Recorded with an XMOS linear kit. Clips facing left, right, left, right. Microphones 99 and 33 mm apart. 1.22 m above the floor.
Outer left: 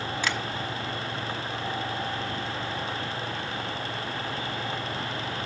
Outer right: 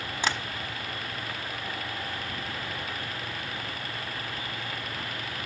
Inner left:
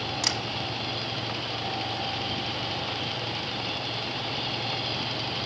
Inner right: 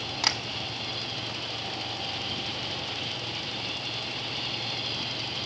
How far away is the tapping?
About 1.5 m.